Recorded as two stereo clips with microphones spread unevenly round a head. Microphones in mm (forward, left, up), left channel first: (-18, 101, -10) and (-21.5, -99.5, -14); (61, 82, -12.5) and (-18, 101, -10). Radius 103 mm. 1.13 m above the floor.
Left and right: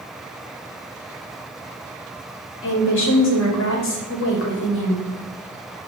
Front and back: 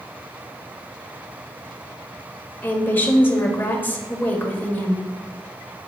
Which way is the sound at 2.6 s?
55° left.